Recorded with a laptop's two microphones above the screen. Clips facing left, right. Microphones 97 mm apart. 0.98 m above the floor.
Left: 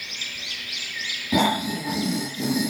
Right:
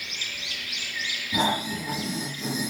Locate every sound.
1.3 s snoring: 85° left, 6 m